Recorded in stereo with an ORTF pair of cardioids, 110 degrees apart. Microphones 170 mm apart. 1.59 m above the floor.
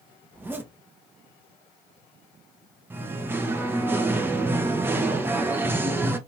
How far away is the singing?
About 0.5 m.